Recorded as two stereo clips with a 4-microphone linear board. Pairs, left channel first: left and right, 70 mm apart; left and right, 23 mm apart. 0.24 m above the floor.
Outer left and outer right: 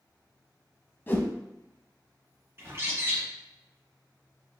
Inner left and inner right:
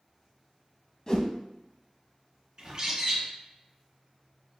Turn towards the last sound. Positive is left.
turn(degrees=-35)  # may be behind; listen again after turning